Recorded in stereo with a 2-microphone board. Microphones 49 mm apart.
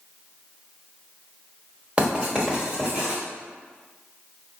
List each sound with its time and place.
2.0 s writing: 25° right (ahead or behind), 1.2 m